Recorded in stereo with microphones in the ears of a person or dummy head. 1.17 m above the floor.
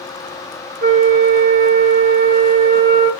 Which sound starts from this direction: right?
A flute, at 0.8 s.